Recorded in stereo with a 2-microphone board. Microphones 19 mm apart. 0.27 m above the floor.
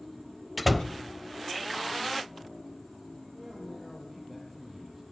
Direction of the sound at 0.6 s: 5° left (ahead or behind).